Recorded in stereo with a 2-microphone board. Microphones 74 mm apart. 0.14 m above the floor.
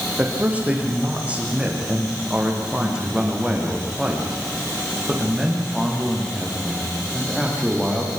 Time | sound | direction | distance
0.2 | a man speaking | 20° right (ahead or behind) | 7 m